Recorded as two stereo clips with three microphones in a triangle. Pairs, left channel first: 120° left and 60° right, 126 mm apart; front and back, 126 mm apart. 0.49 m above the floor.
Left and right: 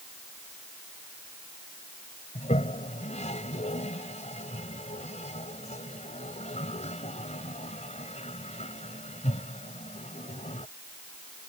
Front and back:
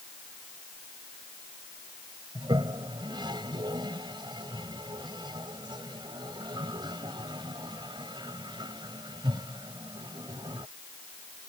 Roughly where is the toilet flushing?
Behind left.